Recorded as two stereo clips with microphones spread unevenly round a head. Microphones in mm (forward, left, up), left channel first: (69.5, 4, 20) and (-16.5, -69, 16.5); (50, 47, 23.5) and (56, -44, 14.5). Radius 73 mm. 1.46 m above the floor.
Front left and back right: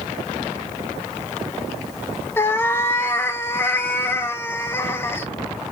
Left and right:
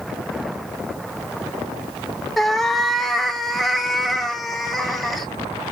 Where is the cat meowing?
30° left, 0.7 m.